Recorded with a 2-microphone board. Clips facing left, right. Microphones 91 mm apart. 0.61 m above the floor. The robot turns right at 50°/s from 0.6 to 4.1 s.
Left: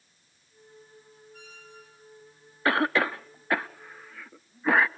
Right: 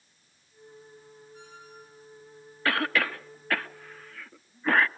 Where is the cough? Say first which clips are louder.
Left 3 dB; 25° left (ahead or behind), 0.6 m; by 4.9 s 10° left (ahead or behind), 0.6 m.